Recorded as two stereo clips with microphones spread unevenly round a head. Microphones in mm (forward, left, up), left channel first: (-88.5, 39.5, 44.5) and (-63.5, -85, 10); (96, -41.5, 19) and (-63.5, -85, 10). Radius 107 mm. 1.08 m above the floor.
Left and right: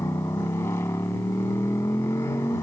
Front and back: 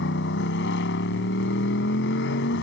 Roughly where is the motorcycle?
Ahead left.